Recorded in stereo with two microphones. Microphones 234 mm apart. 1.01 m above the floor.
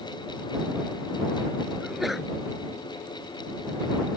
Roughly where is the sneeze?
Centre.